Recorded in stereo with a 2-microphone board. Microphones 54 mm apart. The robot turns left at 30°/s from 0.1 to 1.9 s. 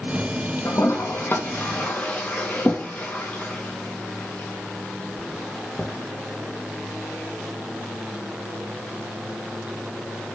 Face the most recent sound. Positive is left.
turn(degrees=25)  # may be behind; listen again after turning